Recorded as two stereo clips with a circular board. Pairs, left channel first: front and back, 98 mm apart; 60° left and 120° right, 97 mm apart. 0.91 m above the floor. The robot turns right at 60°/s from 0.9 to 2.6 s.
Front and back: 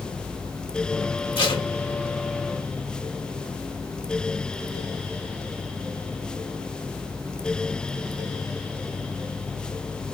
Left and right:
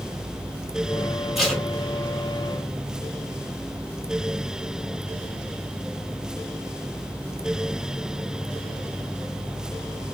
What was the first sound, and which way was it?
Tape being pulled, 35° right.